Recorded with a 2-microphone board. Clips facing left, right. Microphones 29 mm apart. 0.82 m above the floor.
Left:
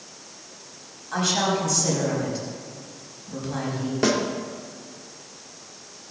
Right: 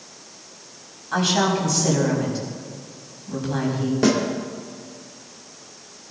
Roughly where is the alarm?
I don't hear an alarm.